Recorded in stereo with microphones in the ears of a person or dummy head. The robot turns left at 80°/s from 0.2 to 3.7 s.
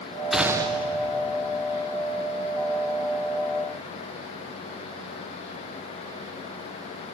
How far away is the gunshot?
About 0.9 m.